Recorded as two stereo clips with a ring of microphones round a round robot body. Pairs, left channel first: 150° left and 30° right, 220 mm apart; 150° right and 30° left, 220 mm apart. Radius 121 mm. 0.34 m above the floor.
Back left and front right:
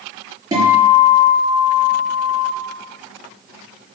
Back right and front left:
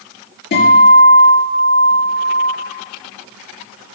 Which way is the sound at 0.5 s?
105° right.